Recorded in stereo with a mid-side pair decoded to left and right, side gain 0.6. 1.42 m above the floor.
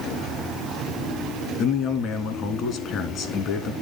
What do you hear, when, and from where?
1.6 s a man speaking: 60° left, 3 m